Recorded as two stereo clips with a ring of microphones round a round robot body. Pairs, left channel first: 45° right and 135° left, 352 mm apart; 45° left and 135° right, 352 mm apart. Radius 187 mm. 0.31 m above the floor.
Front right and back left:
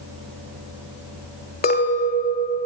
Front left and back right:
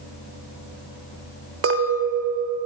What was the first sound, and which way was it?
A clink, 100° right.